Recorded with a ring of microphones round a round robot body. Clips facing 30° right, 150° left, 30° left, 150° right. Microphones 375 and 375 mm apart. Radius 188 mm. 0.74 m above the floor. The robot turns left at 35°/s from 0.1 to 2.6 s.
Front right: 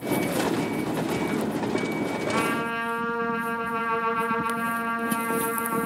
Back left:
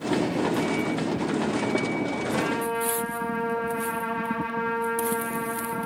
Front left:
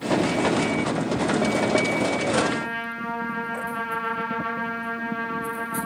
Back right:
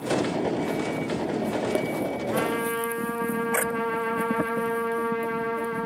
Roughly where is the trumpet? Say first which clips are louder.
Back left 1 dB, front left 1 dB; ahead right.